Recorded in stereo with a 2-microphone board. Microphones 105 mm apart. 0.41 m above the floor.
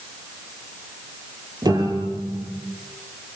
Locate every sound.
1.6 s a piano: 40° right (ahead or behind), 8 m